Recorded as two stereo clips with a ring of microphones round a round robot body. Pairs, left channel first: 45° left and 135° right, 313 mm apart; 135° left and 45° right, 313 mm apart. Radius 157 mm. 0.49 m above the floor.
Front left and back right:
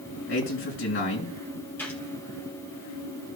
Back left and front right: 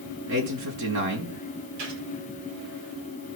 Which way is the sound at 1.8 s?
40° right.